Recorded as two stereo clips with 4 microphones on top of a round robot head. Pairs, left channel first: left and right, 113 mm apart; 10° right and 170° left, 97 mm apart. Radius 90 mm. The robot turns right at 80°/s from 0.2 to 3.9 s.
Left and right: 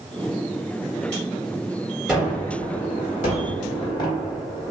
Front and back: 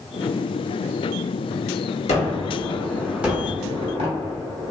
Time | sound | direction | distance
2.1 | a gunshot | straight ahead | 0.9 m